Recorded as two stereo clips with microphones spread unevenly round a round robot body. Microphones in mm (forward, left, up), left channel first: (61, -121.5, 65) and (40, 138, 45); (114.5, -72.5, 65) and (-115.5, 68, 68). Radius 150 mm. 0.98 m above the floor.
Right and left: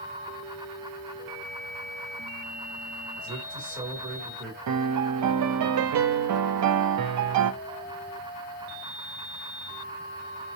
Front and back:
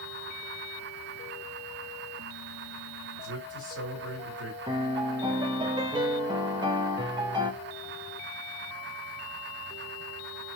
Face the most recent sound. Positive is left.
turn(degrees=75)